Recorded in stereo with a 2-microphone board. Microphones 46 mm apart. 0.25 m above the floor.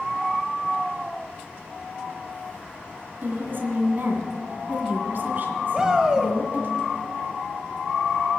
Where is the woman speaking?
50° right (ahead or behind), 2 m.